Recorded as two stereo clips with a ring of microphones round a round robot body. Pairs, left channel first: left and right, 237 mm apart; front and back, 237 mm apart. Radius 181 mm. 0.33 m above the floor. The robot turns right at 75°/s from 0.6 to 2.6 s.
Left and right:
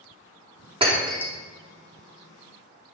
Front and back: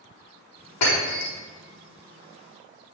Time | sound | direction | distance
0.8 | breaking glass | 25° right | 4.5 m